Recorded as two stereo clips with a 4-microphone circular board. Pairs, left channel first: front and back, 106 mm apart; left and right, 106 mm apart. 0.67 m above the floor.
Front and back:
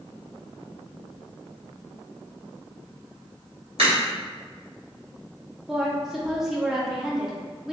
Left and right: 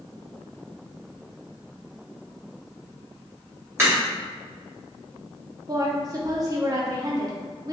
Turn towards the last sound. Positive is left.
turn(degrees=-95)